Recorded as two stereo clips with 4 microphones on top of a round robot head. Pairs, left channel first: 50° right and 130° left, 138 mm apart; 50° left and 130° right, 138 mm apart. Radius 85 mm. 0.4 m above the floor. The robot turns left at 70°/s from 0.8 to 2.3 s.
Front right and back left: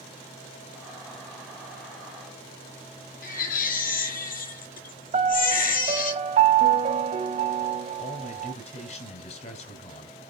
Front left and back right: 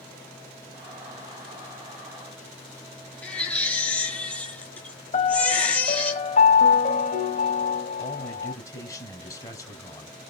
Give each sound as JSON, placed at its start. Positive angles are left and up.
{"t": 3.2, "sound": "a baby crying", "azimuth_deg": -30, "distance_m": 6.0}
{"t": 5.1, "sound": "a piano", "azimuth_deg": 90, "distance_m": 2.5}
{"t": 8.0, "sound": "a man speaking", "azimuth_deg": -15, "distance_m": 4.0}